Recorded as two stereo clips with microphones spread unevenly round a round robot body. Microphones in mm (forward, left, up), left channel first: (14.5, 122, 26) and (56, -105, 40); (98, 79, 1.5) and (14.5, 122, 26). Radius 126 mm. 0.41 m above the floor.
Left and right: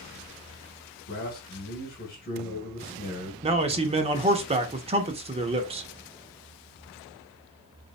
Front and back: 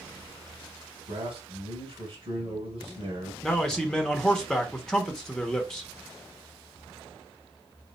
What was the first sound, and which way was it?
A man speaking, 130° left.